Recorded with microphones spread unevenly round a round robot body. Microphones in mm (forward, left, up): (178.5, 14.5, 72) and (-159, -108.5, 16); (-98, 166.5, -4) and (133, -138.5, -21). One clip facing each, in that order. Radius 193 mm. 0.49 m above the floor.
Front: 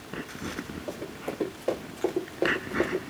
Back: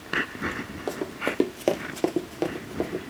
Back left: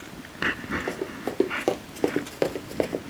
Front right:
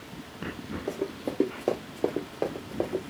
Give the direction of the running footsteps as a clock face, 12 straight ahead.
5 o'clock.